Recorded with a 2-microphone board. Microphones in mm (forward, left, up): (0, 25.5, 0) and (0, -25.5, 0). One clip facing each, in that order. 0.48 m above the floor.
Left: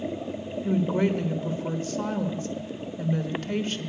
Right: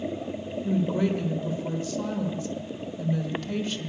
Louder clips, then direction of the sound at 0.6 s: Left 1 dB; 40° left (ahead or behind).